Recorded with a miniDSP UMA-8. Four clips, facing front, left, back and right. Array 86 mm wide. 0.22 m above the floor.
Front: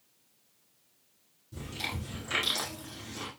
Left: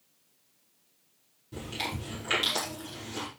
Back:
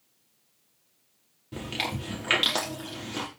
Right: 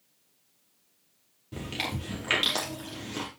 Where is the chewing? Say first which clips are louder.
Right 1 dB, back 7 dB; 155° right, 5 m.